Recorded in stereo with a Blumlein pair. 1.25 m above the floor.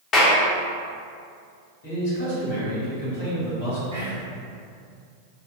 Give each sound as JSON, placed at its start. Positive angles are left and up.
{"t": 0.1, "sound": "a clap", "azimuth_deg": 30, "distance_m": 0.8}
{"t": 1.8, "sound": "a man speaking", "azimuth_deg": 60, "distance_m": 2.0}
{"t": 3.9, "sound": "whispering", "azimuth_deg": -65, "distance_m": 1.3}